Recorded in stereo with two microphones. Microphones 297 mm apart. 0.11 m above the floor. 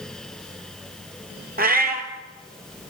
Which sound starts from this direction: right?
A cat meowing, at 1.6 s.